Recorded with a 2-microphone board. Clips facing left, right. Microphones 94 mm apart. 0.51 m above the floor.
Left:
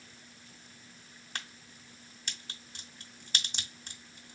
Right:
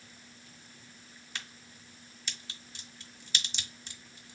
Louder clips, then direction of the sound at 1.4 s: Left 2 dB; 50° left (ahead or behind).